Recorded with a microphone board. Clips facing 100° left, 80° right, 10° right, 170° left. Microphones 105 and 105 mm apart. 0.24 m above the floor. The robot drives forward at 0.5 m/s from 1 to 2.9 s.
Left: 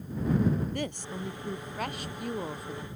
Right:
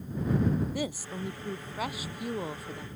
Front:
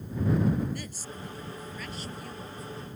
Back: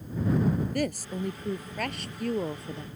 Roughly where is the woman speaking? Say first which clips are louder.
Right 1 dB, back 5 dB; behind.